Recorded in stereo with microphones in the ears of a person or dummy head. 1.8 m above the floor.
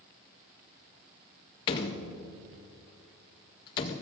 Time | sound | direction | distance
1.7 | a door slam | 30° left (ahead or behind) | 0.8 m